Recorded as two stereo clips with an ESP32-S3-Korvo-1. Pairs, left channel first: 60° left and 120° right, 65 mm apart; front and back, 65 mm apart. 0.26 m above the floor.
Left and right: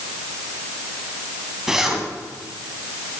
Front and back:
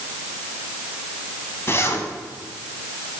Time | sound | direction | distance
1.7 | a zipper | 40° right | 1.7 m